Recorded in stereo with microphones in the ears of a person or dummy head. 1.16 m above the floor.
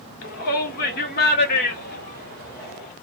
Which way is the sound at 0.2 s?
50° left (ahead or behind).